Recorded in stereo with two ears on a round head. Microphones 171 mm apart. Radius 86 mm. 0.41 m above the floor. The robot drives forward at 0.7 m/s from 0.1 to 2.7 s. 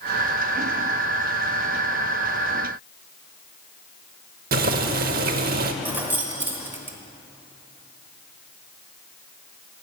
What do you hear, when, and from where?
4.5 s boiling: 55° right (ahead or behind), 0.8 m
5.8 s keys jangling: 10° right (ahead or behind), 1.1 m